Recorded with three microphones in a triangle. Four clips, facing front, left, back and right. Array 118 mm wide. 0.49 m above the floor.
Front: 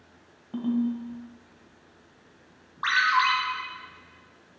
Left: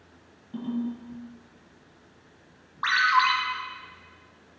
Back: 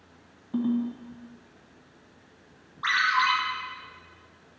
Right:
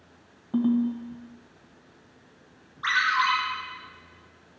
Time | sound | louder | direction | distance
0.5 | a ringtone | right 7 dB, even | 75° right | 2 m
2.8 | a ringtone | left 2 dB, front 1 dB | 65° left | 1.8 m